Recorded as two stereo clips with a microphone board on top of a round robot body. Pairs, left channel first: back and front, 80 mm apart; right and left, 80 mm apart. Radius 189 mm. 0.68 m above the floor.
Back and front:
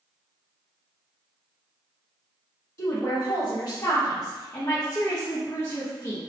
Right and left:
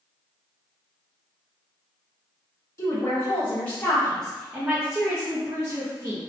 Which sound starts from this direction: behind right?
A woman speaking, at 2.8 s.